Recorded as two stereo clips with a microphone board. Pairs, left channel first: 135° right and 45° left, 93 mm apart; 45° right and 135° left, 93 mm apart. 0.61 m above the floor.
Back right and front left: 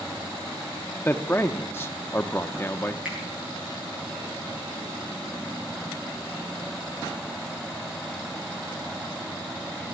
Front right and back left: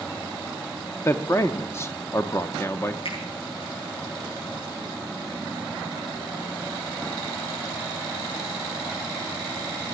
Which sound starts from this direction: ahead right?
A finger snap, at 3.0 s.